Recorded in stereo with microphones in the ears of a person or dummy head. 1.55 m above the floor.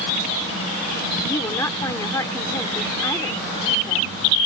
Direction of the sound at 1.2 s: 15° left (ahead or behind).